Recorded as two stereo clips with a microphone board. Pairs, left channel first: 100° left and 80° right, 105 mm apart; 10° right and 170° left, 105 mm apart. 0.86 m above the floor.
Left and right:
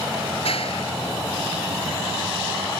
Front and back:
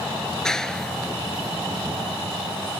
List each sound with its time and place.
0.4 s a clap: 75° left